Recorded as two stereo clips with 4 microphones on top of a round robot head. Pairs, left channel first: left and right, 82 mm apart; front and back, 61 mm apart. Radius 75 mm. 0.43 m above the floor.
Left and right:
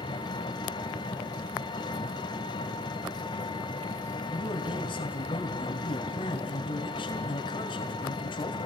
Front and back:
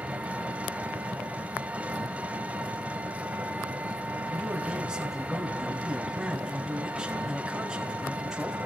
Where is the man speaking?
95° left, 2.5 m.